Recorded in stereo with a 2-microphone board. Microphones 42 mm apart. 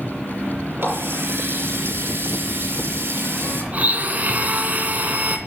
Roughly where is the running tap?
Right.